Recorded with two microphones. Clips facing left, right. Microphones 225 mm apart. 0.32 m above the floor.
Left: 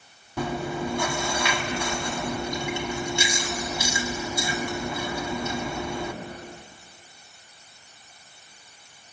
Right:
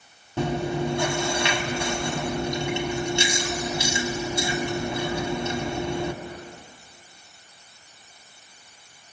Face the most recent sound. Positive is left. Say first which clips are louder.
# right 3 dB
turn(degrees=-25)  # may be behind; listen again after turning